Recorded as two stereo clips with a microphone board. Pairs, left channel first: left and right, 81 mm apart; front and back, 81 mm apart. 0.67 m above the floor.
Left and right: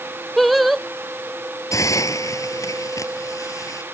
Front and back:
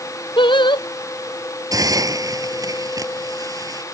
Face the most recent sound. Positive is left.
turn(degrees=140)